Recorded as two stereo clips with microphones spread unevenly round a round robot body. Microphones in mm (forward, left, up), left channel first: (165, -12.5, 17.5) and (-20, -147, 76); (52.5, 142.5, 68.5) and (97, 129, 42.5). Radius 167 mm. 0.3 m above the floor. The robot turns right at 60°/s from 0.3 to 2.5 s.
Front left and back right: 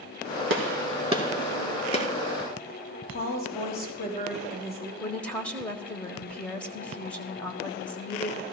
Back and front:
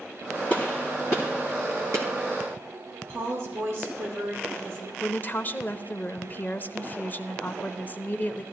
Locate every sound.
0.5 s a gunshot: 115° right, 1.9 m; by 2.1 s 20° right, 1.9 m
3.1 s a woman speaking: 10° right, 6 m
5.0 s a woman speaking: 90° left, 1.1 m